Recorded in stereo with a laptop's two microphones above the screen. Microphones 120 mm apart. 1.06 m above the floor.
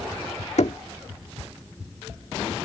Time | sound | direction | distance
0.6 | knocking | 70° left (ahead or behind) | ?